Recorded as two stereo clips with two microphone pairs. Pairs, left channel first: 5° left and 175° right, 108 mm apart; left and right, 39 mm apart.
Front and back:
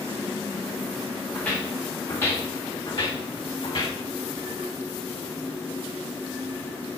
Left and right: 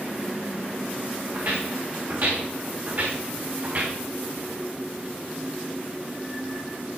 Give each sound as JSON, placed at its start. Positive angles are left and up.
{"t": 1.3, "sound": "footsteps", "azimuth_deg": -75, "distance_m": 3.5}